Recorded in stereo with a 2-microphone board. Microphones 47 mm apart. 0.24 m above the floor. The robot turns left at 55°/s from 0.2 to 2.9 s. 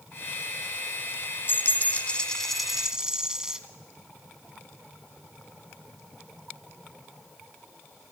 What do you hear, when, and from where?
1.5 s a dropped coin: 60° left, 1.0 m; by 3.6 s 15° right, 1.0 m